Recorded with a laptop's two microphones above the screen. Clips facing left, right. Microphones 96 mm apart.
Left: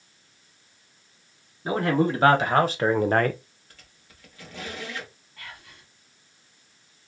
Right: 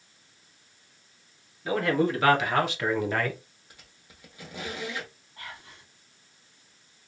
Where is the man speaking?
30° left (ahead or behind), 1.5 m; by 3.4 s 50° left (ahead or behind), 0.5 m.